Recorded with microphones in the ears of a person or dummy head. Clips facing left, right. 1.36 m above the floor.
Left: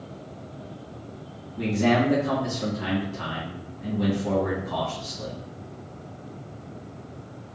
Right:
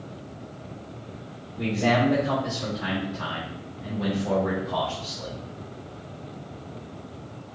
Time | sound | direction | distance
1.6 | a man speaking | 70° left (ahead or behind) | 2 m